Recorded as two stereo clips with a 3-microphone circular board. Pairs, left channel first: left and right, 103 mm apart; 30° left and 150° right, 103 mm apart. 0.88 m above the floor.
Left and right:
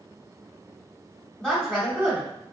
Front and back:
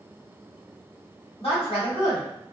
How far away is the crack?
I don't hear a crack.